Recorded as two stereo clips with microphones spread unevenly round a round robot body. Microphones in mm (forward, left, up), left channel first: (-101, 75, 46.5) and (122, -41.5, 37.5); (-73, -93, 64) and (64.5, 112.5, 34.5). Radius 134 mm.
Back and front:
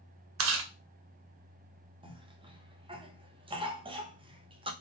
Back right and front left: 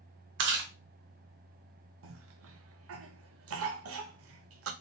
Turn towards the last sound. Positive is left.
turn(degrees=40)